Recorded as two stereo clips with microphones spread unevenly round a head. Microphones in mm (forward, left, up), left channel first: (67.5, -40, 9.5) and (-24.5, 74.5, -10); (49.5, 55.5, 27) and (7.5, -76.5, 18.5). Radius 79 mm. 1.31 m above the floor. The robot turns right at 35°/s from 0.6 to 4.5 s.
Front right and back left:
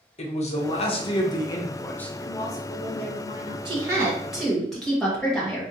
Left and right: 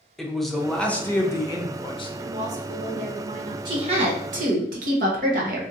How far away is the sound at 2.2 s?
About 0.7 m.